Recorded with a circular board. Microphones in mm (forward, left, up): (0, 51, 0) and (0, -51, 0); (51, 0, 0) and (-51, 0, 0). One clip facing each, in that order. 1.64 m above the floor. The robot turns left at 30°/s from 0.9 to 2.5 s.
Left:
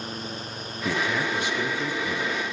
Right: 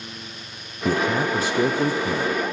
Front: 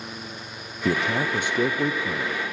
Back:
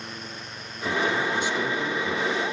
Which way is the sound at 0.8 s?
25° right.